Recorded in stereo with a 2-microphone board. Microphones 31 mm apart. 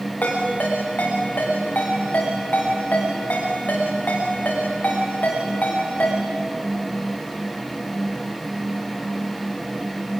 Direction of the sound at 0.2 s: 65° left (ahead or behind).